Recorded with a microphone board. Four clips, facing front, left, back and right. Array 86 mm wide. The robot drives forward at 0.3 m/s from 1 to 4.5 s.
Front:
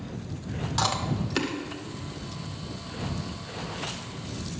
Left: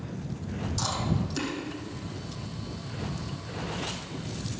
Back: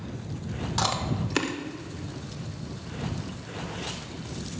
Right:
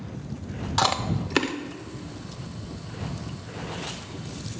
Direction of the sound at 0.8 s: 95° right.